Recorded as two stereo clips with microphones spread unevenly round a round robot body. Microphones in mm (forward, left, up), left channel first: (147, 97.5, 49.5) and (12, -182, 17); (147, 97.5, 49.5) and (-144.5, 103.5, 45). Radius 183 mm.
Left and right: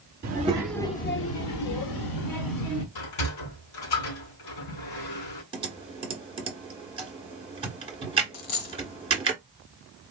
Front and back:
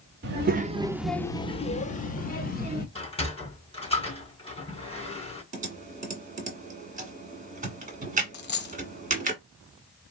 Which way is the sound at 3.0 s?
70° left.